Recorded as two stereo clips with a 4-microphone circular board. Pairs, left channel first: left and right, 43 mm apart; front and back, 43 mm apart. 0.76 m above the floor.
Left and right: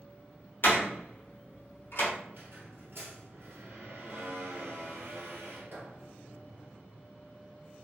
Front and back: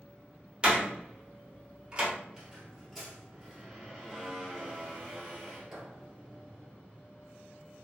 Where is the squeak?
95° right, 1.2 m.